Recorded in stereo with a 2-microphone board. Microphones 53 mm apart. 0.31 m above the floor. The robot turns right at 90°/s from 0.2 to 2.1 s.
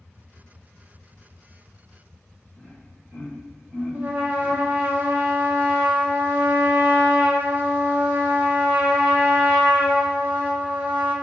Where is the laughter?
30° right (ahead or behind), 1.2 m.